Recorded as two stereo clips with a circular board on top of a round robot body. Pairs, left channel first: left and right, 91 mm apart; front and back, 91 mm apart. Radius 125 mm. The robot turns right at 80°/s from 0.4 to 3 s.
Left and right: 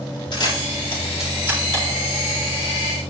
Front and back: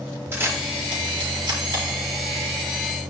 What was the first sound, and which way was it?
A camera shutter, 120° left.